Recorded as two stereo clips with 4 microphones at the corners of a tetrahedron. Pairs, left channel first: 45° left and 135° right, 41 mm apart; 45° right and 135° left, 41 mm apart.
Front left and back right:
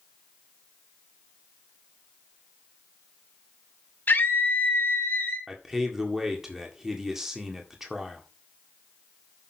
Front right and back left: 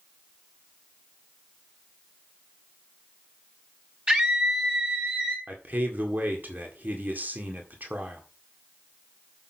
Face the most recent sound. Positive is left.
turn(degrees=145)